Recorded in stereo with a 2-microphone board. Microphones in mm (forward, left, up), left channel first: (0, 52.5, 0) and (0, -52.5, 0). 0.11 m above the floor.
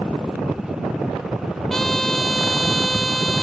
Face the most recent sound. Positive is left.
turn(degrees=5)  # may be behind; listen again after turning